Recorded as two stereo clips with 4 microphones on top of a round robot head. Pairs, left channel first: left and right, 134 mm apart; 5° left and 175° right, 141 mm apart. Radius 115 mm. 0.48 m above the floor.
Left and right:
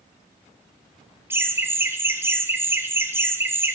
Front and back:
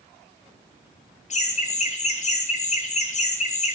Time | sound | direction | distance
1.3 | laughter | 20° right | 1.4 m